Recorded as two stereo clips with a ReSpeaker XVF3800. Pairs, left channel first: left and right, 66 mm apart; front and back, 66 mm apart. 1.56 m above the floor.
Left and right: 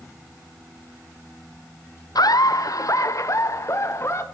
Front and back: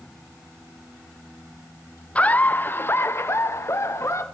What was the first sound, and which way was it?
Laughter, 70° left.